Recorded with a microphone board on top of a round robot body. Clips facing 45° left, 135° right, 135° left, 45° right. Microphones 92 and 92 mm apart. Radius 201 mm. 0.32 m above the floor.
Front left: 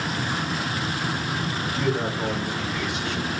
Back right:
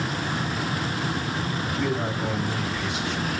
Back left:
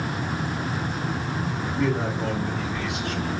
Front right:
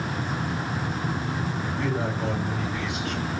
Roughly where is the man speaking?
Ahead left.